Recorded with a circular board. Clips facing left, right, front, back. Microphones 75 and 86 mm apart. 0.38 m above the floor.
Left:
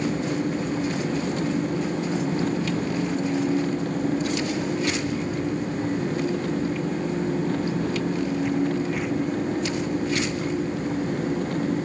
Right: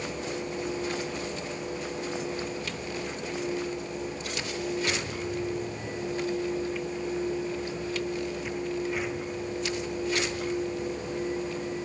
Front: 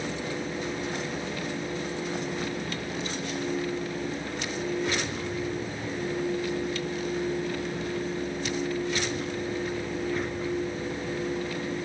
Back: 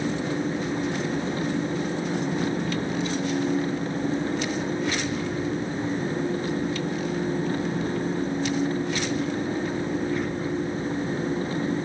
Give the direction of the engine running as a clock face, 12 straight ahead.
8 o'clock.